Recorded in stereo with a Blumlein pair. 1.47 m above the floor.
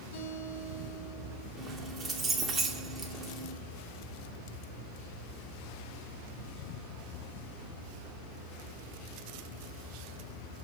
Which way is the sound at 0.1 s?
60° left.